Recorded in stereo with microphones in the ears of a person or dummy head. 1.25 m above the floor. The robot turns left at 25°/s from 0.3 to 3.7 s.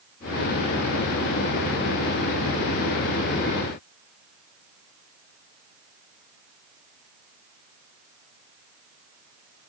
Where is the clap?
I don't hear a clap.